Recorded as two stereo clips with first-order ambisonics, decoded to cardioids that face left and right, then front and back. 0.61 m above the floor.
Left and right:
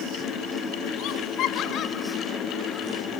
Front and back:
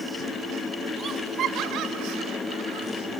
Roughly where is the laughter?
Behind left.